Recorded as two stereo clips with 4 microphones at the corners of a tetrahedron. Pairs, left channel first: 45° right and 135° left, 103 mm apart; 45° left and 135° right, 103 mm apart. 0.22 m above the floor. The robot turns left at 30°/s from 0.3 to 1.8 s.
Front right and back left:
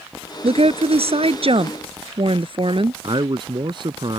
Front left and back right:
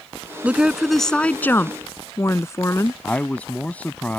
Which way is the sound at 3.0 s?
120° left.